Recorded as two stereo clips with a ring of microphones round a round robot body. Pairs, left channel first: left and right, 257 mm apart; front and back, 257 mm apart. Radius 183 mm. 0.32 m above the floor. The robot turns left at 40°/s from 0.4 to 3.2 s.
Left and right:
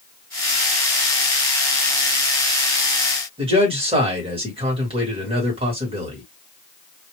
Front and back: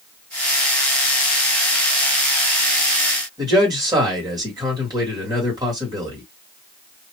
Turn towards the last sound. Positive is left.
turn(degrees=-125)